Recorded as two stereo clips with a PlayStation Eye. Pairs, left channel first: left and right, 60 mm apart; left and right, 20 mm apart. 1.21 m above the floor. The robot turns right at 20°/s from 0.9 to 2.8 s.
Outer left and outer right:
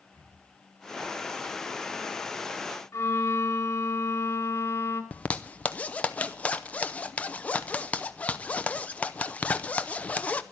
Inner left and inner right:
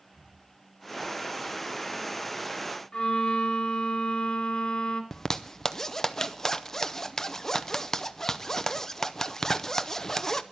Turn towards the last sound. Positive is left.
turn(degrees=20)  # may be behind; listen again after turning